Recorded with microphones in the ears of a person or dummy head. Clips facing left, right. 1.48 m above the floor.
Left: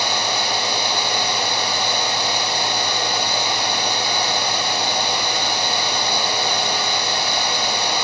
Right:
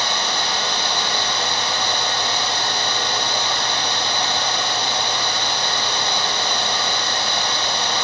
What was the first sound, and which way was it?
Only background noise.